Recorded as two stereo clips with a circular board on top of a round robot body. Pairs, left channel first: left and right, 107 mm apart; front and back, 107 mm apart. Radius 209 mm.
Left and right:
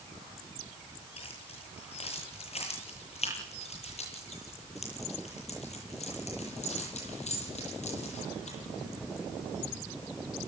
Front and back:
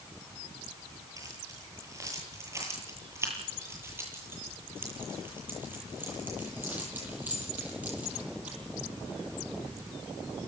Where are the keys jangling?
120° left, 9 m; by 8.6 s 105° left, 13.5 m.